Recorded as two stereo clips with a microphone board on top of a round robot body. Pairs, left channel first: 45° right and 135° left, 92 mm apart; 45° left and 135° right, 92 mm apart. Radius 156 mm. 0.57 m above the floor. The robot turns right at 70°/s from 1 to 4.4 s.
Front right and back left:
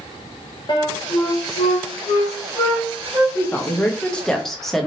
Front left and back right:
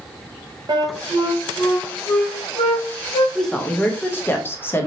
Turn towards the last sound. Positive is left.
turn(degrees=35)